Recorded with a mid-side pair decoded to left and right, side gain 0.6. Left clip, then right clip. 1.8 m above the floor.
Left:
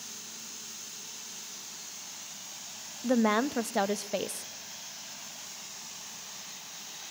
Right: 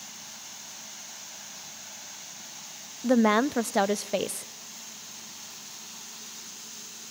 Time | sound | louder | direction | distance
3.0 | a woman speaking | right 4 dB | 20° right | 0.5 m